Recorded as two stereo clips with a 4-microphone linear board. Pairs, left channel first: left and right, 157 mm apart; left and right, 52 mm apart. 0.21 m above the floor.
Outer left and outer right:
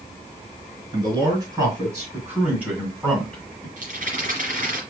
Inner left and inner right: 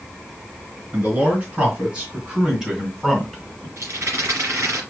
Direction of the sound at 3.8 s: 55° right (ahead or behind).